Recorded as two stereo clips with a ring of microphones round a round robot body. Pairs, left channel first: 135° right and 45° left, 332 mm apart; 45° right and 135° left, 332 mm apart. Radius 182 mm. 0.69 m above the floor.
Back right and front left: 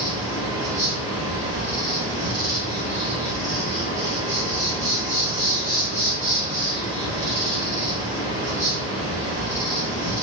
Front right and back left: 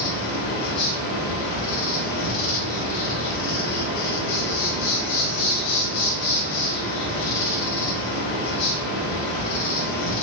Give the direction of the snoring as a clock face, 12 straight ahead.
I don't hear snoring.